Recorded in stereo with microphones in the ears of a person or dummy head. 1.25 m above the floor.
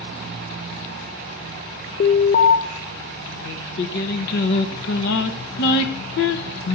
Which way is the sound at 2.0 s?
45° left (ahead or behind).